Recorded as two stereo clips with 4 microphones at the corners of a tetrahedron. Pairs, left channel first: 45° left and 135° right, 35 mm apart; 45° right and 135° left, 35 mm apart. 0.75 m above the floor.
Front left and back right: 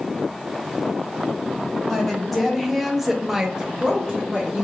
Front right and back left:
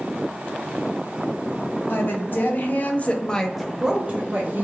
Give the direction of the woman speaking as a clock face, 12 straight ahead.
1 o'clock.